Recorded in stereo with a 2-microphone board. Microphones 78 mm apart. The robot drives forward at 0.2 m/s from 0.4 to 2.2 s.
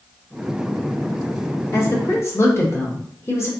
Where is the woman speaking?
35° left (ahead or behind), 1.0 m.